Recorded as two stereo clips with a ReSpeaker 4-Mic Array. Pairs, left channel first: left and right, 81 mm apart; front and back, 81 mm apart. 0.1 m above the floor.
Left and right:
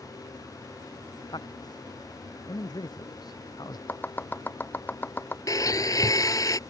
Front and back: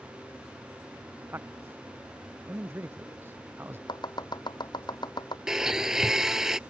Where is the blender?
100° left.